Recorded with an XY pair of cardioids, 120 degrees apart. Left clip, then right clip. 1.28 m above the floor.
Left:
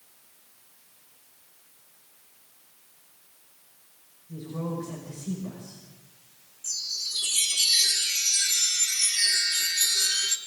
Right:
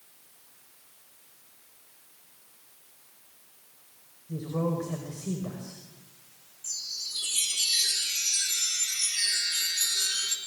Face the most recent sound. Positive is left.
turn(degrees=15)